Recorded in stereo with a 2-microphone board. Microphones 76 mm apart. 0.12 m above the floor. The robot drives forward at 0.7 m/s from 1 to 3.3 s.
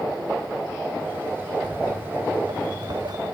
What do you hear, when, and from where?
1.6 s footsteps: 70° right (ahead or behind), 0.7 m; by 3.2 s 65° right (ahead or behind), 1.1 m